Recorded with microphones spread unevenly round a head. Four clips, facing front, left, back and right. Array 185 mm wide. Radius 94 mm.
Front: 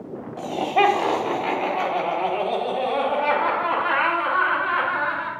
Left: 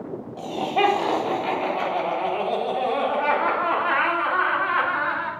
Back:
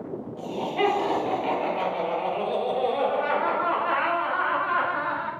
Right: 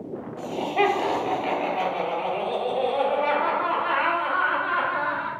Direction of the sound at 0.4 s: 20° left.